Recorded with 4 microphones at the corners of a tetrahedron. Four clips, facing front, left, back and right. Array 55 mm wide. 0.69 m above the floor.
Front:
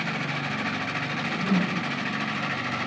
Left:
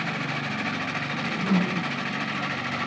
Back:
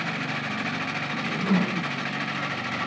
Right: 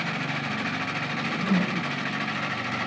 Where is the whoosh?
Straight behind, 1.2 m.